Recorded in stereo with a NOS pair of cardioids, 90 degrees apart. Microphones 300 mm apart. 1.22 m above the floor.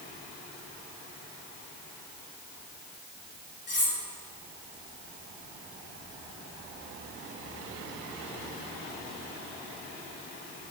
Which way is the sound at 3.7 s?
35° left.